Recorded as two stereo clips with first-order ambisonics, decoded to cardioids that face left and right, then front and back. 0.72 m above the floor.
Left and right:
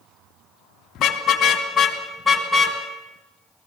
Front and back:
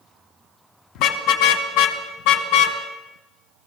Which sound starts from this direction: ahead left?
A car horn, at 0.9 s.